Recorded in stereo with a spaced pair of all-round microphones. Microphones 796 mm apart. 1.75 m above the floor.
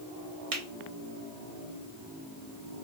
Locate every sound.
0.5 s a finger snap: 45° right (ahead or behind), 1.1 m